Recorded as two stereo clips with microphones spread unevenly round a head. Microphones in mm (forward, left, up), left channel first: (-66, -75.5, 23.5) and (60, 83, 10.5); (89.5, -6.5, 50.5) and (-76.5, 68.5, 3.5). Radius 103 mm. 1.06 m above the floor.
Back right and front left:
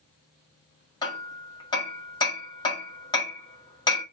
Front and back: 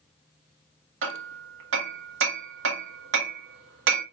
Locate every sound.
1.0 s hammering: 160° left, 1.8 m